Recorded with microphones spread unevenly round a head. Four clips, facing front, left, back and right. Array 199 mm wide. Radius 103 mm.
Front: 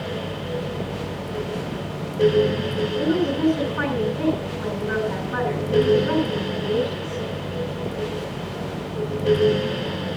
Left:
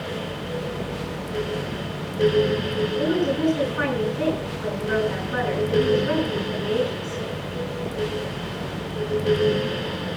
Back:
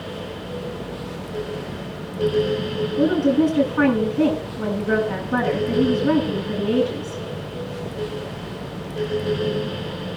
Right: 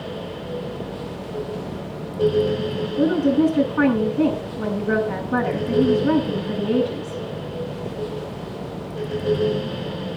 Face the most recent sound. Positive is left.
turn(degrees=-130)